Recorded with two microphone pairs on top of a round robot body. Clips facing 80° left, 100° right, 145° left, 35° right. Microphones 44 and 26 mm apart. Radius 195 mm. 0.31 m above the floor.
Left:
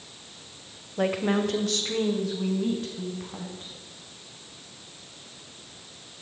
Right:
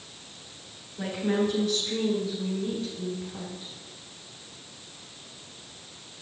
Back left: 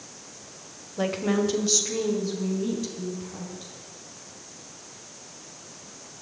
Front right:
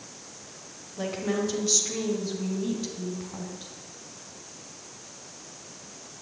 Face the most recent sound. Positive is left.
turn(degrees=40)